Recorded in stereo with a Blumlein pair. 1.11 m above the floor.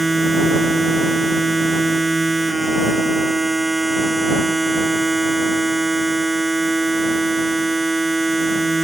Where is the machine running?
10° right.